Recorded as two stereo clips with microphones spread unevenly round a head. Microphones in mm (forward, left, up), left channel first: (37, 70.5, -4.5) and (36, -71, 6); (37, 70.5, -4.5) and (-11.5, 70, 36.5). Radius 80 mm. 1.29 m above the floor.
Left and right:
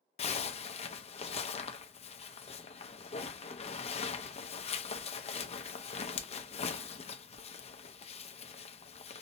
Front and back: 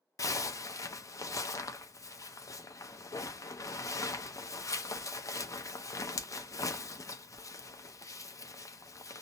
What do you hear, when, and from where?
0.2 s a zipper: 50° left, 0.6 m